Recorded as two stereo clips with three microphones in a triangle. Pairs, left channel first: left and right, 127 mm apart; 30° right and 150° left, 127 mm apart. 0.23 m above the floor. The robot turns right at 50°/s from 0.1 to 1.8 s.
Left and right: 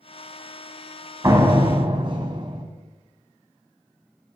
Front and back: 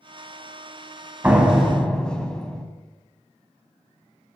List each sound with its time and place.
1.2 s a door slam: 140° right, 1.2 m; by 2.6 s 110° right, 1.2 m